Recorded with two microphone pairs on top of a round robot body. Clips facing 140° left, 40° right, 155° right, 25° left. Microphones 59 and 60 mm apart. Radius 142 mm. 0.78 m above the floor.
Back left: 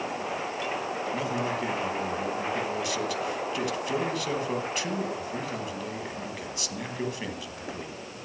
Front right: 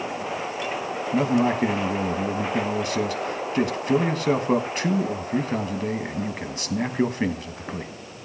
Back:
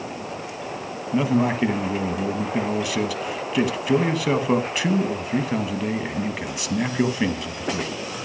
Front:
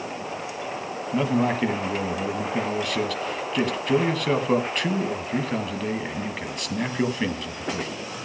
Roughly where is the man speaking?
Right.